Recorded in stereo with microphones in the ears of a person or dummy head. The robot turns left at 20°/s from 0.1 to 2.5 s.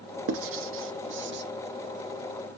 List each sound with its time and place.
0.3 s writing: 65° right (ahead or behind), 0.6 m; by 1.4 s 55° right (ahead or behind), 0.6 m